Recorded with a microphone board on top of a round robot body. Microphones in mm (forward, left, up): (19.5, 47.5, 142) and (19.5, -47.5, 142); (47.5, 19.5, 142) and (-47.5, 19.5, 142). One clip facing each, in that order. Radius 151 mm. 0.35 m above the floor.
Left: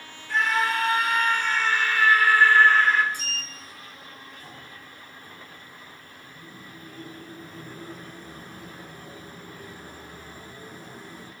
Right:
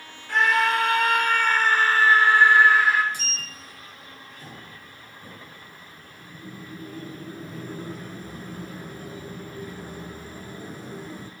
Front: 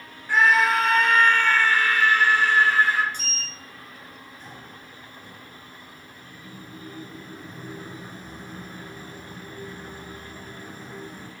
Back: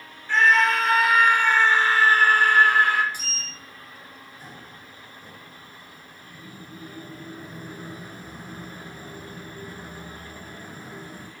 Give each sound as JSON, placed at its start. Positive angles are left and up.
{"t": 0.3, "sound": "a scream", "azimuth_deg": -80, "distance_m": 2.0}
{"t": 3.1, "sound": "a sliding door", "azimuth_deg": -100, "distance_m": 1.1}